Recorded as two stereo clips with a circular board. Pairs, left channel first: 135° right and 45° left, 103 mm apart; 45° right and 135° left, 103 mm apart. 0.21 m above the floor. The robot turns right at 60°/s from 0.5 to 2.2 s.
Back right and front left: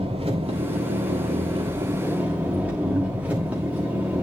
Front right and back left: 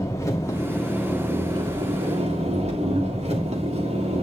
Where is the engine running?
20° left, 8.5 m; by 4.2 s 120° left, 8.5 m.